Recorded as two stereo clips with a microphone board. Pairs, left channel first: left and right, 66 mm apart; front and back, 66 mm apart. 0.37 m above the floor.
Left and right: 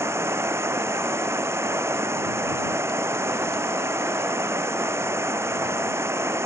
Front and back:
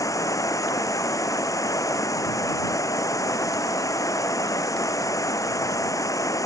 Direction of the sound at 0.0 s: 40° right.